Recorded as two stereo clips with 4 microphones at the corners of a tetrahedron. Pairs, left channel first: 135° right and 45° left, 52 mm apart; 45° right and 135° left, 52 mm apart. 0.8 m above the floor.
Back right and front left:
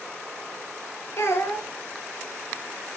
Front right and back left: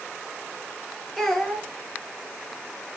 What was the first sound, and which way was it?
A child speaking, 130° right.